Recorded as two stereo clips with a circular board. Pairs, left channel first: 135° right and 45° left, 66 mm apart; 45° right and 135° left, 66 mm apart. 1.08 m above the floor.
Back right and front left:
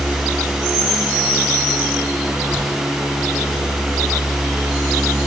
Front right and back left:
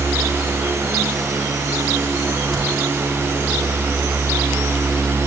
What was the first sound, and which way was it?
A crack, 55° left.